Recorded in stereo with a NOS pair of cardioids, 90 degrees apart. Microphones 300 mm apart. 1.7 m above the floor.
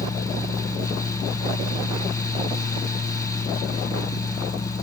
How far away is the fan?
About 1.2 m.